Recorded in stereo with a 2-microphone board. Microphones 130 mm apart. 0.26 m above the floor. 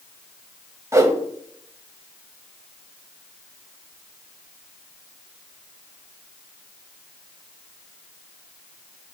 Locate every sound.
0.9 s a whoosh: 25° right (ahead or behind), 0.7 m